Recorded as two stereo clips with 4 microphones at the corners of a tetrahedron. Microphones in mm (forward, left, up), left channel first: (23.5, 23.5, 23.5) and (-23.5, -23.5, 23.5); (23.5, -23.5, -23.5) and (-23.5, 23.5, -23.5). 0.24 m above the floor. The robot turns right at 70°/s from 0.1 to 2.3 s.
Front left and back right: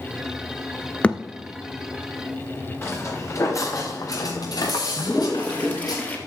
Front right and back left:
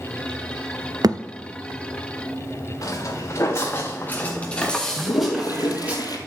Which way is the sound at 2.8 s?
5° right.